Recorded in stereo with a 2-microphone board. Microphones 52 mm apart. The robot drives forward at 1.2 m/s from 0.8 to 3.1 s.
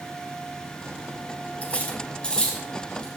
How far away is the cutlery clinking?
About 1.6 m.